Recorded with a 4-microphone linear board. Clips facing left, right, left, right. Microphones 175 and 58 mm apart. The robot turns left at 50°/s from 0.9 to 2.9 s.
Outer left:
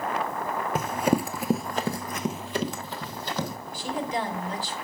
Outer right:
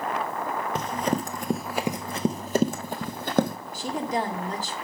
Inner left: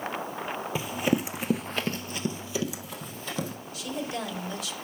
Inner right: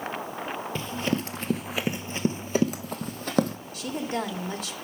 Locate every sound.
0.8 s running footsteps: 10° left (ahead or behind), 0.7 m; by 3.6 s 60° right (ahead or behind), 1.4 m
3.7 s a woman speaking: 45° right (ahead or behind), 1.6 m